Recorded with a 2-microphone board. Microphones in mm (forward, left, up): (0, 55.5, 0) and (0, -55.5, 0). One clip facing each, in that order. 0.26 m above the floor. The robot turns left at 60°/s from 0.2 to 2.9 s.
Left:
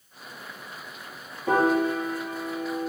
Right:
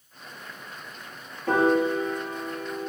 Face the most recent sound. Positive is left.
turn(degrees=-75)